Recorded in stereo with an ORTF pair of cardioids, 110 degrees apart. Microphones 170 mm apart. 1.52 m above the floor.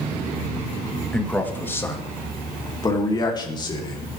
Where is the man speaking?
5° left, 2 m; by 4.2 s 30° left, 4.5 m.